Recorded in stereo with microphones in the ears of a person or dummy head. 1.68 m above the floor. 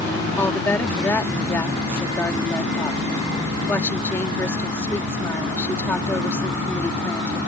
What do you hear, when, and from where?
0.4 s a woman speaking: 20° left (ahead or behind)